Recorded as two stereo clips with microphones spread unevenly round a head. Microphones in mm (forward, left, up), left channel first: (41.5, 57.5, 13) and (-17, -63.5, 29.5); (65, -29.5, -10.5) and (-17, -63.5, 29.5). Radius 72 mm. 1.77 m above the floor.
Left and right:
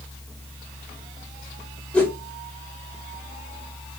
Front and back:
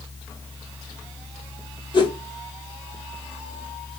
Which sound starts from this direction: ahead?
A whoosh, at 1.9 s.